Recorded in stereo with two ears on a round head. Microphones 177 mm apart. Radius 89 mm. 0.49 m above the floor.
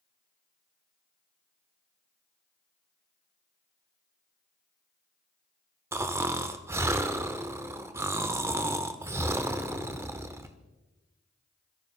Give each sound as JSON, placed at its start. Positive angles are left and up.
{"t": 5.9, "sound": "snoring", "side_deg": -15, "distance_m": 0.9}